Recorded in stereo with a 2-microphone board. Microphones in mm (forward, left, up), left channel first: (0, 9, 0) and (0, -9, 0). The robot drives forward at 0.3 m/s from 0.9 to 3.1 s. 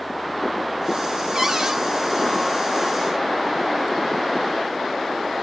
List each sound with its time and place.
1.4 s a cupboard door: 45° right (ahead or behind), 1.4 m